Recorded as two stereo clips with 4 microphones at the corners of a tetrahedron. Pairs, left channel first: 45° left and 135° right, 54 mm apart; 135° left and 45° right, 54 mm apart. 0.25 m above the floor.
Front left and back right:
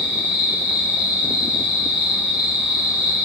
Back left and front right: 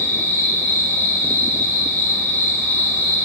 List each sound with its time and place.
0.0 s an insect: 165° left, 0.8 m